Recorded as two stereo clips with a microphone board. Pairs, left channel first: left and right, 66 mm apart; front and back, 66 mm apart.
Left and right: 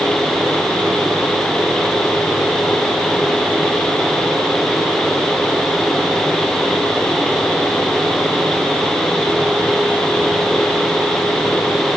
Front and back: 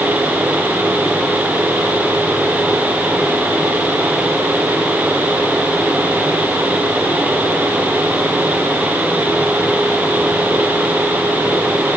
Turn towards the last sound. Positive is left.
No sound to turn to.